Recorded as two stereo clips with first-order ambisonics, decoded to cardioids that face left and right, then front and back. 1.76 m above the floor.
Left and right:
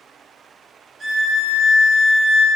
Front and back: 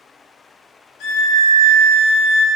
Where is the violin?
10° right, 0.5 m.